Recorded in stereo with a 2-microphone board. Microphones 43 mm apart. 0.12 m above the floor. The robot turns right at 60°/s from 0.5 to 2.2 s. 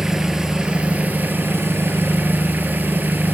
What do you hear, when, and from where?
0.0 s an engine running: 160° right, 0.7 m; by 3.3 s 60° right, 0.7 m